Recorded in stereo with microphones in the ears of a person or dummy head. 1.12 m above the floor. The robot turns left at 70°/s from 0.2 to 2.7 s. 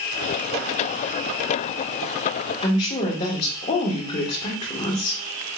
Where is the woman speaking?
20° left (ahead or behind), 1.3 m; by 5.2 s 25° left (ahead or behind), 1.3 m.